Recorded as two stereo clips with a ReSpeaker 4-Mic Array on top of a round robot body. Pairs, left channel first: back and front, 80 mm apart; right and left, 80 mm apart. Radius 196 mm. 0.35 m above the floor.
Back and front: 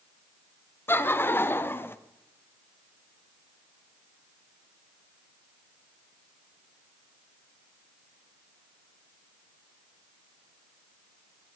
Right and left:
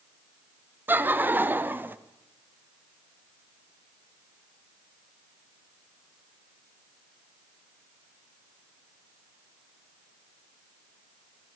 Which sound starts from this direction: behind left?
Laughter, at 0.9 s.